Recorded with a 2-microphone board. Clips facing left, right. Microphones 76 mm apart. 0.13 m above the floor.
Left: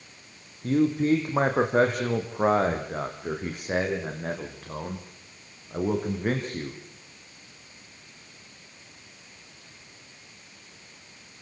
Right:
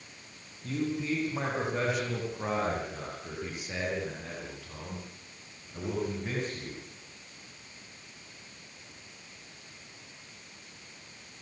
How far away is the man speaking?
About 6 m.